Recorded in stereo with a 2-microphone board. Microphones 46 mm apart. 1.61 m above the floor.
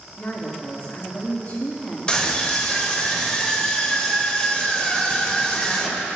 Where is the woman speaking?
55° left (ahead or behind), 4 m.